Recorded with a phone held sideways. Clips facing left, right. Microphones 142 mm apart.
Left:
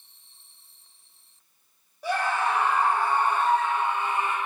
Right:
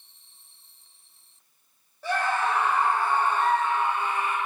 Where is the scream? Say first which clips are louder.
Even; 15° left (ahead or behind), 4 m; by 4.4 s 25° left (ahead or behind), 2.5 m.